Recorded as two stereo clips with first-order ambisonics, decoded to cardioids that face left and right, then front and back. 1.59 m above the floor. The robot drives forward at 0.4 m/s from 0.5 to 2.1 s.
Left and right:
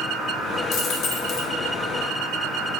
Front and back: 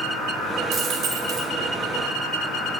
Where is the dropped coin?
130° left, 1.5 m; by 1.5 s 140° left, 1.7 m.